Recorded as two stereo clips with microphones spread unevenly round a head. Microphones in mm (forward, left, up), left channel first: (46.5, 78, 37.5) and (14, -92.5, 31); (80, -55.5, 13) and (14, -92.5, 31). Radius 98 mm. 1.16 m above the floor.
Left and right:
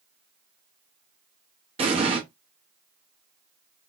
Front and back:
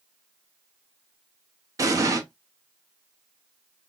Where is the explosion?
160° right, 0.6 m.